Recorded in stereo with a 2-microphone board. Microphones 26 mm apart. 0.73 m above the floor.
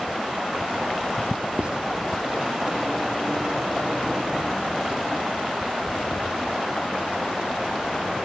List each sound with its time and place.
1.6 s writing: 40° right (ahead or behind)